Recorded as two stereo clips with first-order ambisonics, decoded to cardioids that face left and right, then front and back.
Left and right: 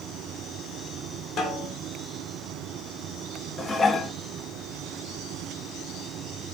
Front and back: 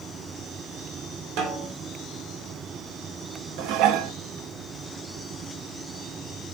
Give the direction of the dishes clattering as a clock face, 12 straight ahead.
7 o'clock.